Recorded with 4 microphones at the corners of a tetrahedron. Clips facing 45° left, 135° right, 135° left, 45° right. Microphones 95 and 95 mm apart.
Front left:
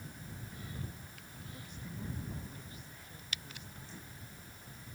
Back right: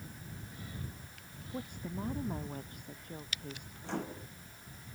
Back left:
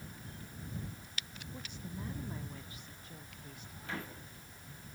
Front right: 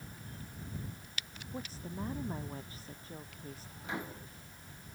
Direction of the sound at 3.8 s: 115° right.